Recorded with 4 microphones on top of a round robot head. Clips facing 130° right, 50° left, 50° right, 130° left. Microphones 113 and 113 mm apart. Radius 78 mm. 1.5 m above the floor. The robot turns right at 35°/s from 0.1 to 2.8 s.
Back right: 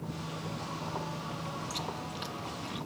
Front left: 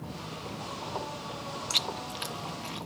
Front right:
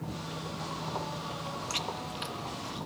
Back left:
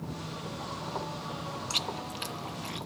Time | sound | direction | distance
1.7 | chewing | 65° left | ?